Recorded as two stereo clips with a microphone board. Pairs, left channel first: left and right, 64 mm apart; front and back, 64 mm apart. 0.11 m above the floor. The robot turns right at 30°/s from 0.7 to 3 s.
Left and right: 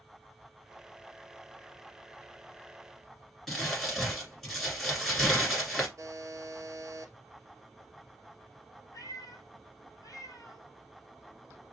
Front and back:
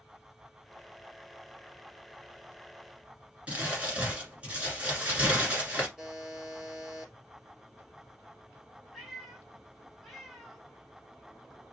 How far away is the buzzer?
About 1.2 m.